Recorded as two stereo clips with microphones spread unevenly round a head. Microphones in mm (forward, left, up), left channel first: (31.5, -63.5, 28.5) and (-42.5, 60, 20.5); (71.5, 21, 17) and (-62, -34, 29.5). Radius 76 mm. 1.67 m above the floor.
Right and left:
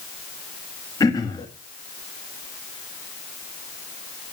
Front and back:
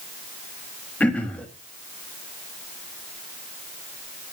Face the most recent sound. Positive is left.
turn(degrees=-60)